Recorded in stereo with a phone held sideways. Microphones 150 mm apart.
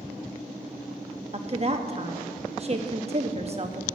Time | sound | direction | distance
1.3 | a woman speaking | 45° right (ahead or behind) | 1.1 m